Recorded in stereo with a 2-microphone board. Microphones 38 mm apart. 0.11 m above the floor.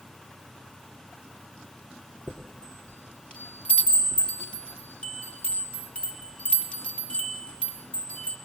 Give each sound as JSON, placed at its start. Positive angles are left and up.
{"t": 2.3, "sound": "a chime", "side_deg": 30, "distance_m": 3.0}